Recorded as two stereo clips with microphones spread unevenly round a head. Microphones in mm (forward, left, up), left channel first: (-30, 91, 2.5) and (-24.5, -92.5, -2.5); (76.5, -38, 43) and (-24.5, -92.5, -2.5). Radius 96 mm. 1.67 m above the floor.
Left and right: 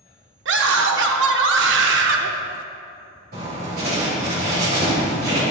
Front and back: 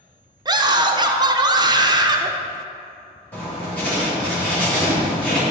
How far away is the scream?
About 0.9 m.